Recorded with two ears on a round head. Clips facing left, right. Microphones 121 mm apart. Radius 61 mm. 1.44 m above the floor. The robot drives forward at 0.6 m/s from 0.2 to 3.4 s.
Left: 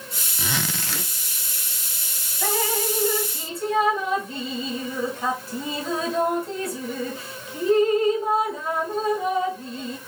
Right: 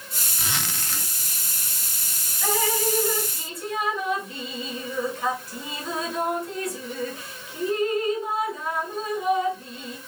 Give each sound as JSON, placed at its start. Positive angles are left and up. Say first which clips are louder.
{"t": 0.4, "sound": "a zipper", "louder": "left 4 dB", "side_deg": 80, "distance_m": 0.7}
{"t": 2.4, "sound": "dripping", "louder": "even", "side_deg": 35, "distance_m": 1.8}